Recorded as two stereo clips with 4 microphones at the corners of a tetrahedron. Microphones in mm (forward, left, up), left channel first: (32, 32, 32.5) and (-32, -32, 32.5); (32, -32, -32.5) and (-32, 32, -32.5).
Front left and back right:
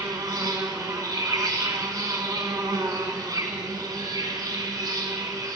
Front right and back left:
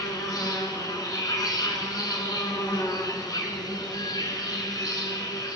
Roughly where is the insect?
Right.